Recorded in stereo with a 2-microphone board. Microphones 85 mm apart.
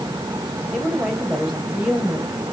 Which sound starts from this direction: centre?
A woman speaking, at 0.7 s.